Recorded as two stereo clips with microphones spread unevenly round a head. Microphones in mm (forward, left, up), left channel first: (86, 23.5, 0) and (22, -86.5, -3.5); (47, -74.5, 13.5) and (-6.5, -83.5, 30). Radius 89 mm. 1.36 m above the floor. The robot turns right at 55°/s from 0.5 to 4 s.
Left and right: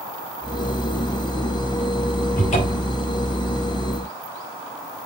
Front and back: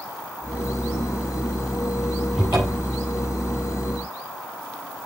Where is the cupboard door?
100° left, 5.5 m; by 3.0 s 135° left, 5.5 m.